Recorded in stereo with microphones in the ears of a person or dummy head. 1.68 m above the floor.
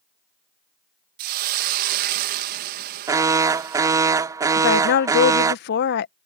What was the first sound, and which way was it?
A hiss, 55° right (ahead or behind).